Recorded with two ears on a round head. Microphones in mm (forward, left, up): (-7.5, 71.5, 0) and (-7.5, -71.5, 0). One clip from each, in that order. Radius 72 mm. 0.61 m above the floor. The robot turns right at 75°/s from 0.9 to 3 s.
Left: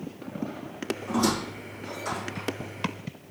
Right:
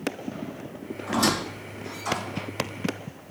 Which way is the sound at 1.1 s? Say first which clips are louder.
Right 3 dB; 80° right.